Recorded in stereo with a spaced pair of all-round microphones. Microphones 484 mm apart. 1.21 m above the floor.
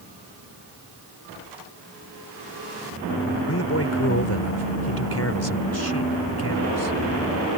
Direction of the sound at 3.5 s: 30° left (ahead or behind).